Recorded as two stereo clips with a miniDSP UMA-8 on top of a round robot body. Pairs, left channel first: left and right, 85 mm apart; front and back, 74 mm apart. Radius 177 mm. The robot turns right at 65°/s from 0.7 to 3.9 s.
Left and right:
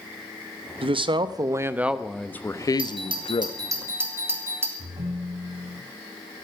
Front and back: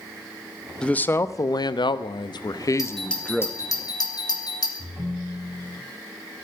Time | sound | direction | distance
0.8 | a man speaking | 80° right | 1.1 m
2.8 | a doorbell | 100° right | 3.5 m
4.8 | a ringtone | 80° right | 4.5 m